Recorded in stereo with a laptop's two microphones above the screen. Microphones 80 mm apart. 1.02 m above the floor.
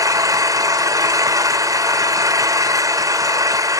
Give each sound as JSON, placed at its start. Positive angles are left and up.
{"t": 0.0, "sound": "an engine running", "side_deg": -45, "distance_m": 1.4}